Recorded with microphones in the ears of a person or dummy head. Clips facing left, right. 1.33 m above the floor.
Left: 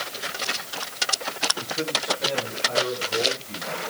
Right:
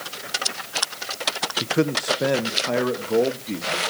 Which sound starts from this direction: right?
A man speaking, at 1.6 s.